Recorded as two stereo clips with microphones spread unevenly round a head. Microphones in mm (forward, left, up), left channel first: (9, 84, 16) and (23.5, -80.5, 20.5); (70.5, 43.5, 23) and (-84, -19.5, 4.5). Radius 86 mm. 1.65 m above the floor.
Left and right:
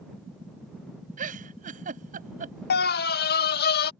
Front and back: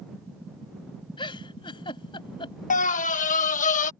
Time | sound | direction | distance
1.2 | a giggle | 40° right | ?
2.7 | a scream | 65° left | ?